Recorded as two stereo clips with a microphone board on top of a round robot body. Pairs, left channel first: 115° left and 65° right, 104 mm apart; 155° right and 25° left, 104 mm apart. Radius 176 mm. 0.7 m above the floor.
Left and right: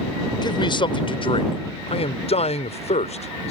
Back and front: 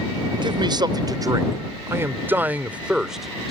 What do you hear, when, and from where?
0.4 s a man speaking: 65° left; by 3.5 s 115° left